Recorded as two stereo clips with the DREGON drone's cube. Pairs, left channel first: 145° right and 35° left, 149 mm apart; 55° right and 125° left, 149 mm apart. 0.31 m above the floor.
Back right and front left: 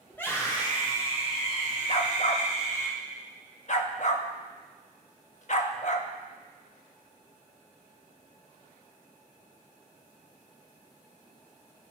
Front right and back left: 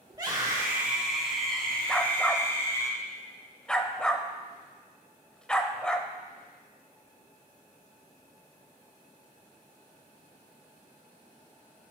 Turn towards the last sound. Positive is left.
turn(degrees=-140)